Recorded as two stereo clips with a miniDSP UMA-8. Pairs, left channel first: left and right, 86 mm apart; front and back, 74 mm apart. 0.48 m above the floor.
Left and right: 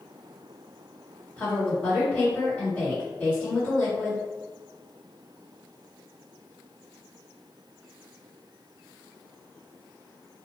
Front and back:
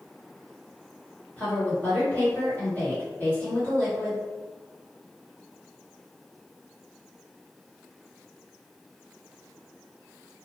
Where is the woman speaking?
40° left, 1.4 m.